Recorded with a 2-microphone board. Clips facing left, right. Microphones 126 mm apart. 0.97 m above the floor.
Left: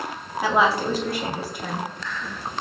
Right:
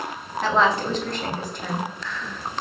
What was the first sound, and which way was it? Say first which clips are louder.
A woman speaking: even; 10° left (ahead or behind).